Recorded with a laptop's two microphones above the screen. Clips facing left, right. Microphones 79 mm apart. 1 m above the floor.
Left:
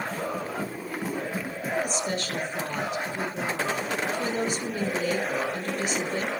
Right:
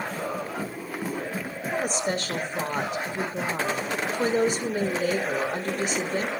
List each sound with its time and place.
1.7 s a woman speaking: 45° right (ahead or behind), 4 m